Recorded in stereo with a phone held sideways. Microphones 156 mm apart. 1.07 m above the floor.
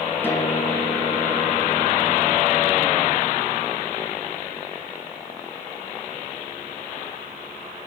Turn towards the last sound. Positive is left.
turn(degrees=15)  # may be behind; listen again after turning